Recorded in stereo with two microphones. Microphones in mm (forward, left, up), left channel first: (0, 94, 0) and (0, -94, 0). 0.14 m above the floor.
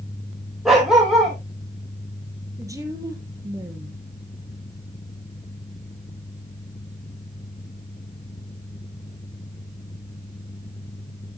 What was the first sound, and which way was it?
A dog barking, centre (ahead or behind).